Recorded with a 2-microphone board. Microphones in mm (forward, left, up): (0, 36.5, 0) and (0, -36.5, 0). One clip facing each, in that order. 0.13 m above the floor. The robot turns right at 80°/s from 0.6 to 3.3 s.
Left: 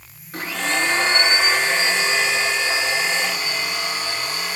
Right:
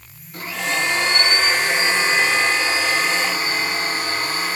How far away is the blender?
About 5.5 m.